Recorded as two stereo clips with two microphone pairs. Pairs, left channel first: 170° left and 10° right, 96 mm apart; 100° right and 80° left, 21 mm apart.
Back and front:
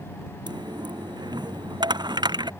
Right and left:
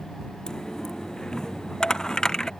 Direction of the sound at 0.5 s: 45° right.